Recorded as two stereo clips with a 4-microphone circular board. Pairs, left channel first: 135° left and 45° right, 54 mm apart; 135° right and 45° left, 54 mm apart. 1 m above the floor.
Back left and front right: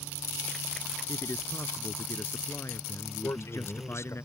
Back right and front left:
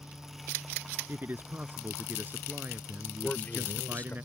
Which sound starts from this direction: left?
A man speaking, at 1.1 s.